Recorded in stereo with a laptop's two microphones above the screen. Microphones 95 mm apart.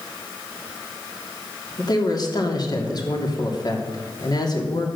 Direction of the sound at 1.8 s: 45° left (ahead or behind).